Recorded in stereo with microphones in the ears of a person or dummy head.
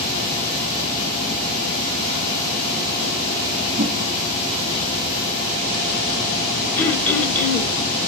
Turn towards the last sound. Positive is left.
turn(degrees=15)  # may be behind; listen again after turning